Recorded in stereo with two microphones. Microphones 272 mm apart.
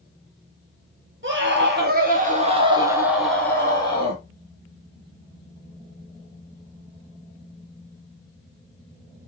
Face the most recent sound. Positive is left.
turn(degrees=25)  # may be behind; listen again after turning